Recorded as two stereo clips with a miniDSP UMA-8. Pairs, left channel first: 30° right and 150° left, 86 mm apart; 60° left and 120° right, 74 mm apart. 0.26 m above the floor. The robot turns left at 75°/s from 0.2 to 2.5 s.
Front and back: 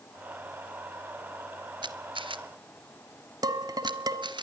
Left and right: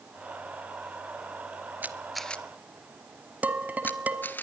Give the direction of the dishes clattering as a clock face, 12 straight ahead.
6 o'clock.